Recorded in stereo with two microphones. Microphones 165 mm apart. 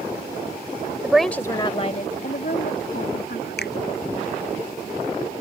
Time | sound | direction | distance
1.0 | a woman speaking | 10° right (ahead or behind) | ?
3.6 | a finger snap | 80° left | ?